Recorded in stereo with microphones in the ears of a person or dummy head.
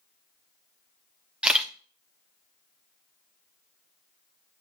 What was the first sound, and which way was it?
A camera shutter, 5° right (ahead or behind).